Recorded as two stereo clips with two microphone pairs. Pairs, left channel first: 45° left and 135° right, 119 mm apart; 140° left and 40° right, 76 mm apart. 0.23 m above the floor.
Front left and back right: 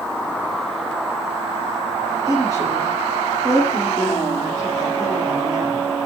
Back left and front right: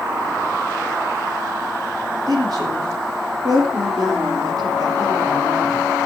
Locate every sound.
2.3 s a woman speaking: 75° right, 5.5 m